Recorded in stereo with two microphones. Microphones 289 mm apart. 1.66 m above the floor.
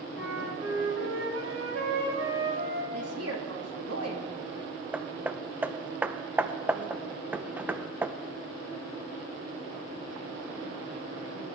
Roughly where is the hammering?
Centre.